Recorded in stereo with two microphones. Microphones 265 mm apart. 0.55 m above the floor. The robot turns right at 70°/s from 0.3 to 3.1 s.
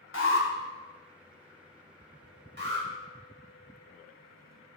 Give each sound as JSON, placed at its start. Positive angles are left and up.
{"t": 0.1, "sound": "an alarm", "side_deg": 50, "distance_m": 0.7}
{"t": 2.6, "sound": "an alarm", "side_deg": -40, "distance_m": 1.0}